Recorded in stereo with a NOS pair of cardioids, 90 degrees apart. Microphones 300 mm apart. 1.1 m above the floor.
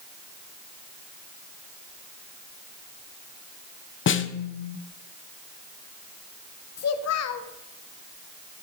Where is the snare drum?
45° left, 0.7 m.